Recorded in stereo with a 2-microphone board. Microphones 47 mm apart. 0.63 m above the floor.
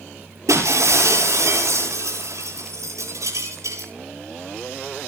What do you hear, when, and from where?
0.5 s breaking glass: 80° right, 9.5 m